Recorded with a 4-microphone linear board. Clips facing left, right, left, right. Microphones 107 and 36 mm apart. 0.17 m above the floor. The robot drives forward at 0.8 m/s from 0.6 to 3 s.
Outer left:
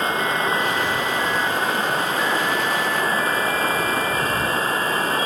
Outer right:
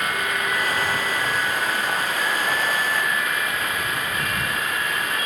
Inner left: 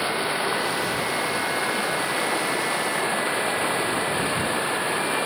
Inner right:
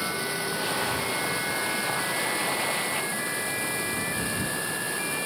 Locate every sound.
0.0 s running water: 30° left (ahead or behind)